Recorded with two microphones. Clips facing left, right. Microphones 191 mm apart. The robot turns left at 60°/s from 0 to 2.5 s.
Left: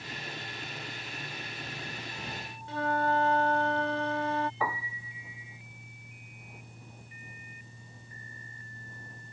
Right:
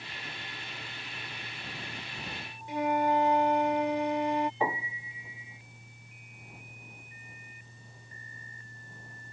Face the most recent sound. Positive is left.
turn(degrees=-25)  # may be behind; listen again after turning